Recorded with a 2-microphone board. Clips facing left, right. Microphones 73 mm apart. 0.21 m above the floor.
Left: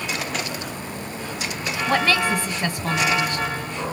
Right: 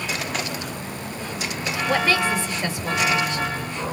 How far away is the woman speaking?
About 2.5 m.